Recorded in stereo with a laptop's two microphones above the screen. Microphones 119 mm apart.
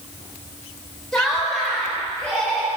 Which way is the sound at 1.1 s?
5° left (ahead or behind).